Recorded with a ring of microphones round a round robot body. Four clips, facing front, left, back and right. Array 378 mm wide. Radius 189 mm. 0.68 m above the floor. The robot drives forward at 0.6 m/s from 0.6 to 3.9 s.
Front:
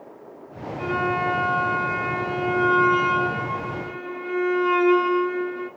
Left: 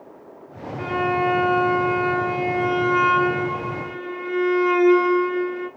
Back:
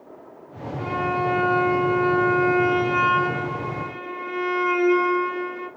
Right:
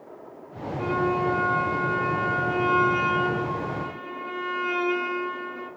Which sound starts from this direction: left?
A violin, at 0.8 s.